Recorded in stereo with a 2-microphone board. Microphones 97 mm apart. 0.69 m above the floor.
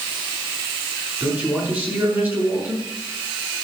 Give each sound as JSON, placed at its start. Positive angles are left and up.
{"t": 1.2, "sound": "a man speaking", "side_deg": -20, "distance_m": 6.5}